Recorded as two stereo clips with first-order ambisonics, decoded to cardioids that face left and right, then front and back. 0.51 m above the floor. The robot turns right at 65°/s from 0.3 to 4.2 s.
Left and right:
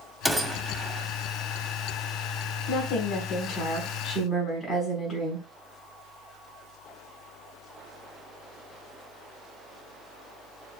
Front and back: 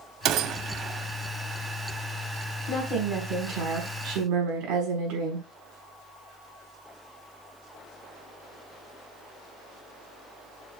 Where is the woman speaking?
80° left, 4.5 m; by 5.5 s straight behind, 4.5 m.